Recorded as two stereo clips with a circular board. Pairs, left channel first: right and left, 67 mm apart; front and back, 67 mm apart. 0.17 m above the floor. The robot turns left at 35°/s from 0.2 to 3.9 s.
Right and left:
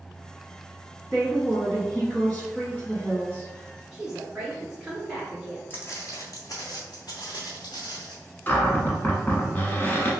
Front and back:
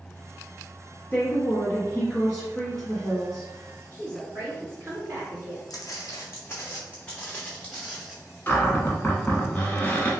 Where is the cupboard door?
50° right, 0.8 m.